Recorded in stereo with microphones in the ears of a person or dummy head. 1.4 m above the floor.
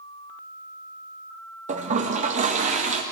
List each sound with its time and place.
1.7 s a toilet flushing: 45° right (ahead or behind), 2.0 m